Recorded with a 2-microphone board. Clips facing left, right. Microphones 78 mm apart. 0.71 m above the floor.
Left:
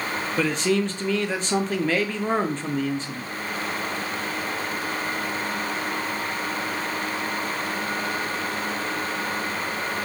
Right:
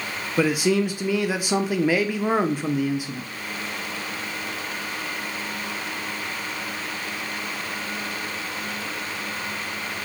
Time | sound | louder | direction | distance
0.4 | a man speaking | right 3 dB | 10° right (ahead or behind) | 0.5 m